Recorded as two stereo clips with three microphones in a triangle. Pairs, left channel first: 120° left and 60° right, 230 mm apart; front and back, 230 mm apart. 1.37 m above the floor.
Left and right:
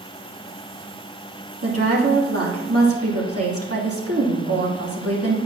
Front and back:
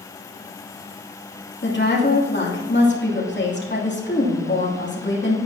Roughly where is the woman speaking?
Ahead right.